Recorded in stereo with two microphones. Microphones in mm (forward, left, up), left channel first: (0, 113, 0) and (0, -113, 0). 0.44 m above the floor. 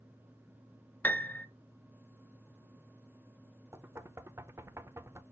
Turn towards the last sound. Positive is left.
turn(degrees=-10)  # may be behind; listen again after turning